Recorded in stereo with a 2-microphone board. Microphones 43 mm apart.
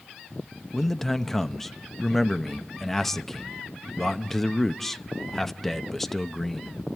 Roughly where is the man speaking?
Centre.